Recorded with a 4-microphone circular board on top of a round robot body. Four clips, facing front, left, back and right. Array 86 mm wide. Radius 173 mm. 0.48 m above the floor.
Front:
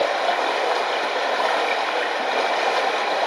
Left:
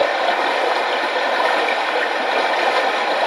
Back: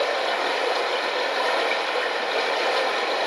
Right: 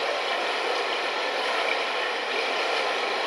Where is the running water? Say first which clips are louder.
Left 9 dB, front 3 dB; 70° left, 0.7 m.